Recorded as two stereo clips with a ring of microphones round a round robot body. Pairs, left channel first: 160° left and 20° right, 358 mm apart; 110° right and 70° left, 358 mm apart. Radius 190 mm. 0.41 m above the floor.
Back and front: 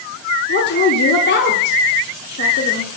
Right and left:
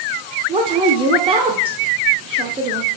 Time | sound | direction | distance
0.5 | a woman speaking | 130° left | 0.9 m